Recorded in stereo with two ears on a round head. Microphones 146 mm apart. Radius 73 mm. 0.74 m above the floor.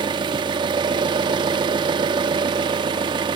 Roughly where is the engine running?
Right.